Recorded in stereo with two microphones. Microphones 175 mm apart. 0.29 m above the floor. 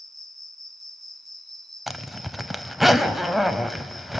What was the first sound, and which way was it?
An insect, centre (ahead or behind).